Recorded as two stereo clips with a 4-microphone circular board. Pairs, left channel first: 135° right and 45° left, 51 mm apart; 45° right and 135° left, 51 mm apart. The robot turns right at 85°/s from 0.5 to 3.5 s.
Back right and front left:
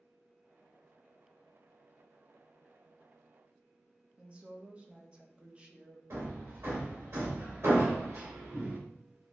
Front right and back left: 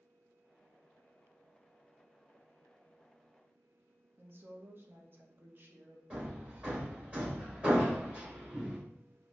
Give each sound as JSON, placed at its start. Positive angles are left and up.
{"t": 4.2, "sound": "a woman speaking", "azimuth_deg": 105, "distance_m": 0.7}
{"t": 6.1, "sound": "hammering", "azimuth_deg": 70, "distance_m": 1.8}